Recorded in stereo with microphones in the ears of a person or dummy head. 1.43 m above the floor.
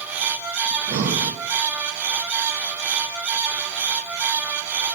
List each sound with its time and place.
0.7 s breathing: 40° right (ahead or behind), 1.0 m